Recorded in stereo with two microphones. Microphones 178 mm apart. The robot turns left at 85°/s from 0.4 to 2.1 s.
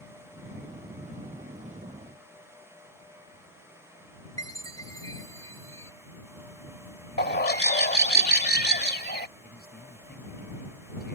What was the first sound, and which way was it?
A chime, 20° left (ahead or behind).